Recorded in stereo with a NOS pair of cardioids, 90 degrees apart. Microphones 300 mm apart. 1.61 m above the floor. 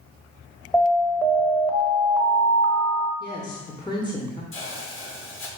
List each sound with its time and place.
0.7 s an alarm: 10° left, 0.9 m
3.2 s a woman speaking: 15° left, 0.9 m
4.5 s a hiss: 45° left, 1.2 m